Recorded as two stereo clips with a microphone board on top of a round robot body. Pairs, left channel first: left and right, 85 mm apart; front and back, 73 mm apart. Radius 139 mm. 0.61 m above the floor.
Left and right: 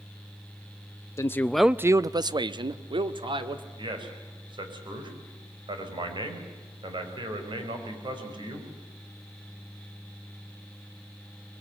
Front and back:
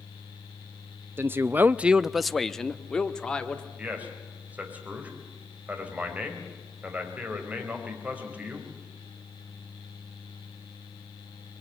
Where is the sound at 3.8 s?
110° right, 4.5 m.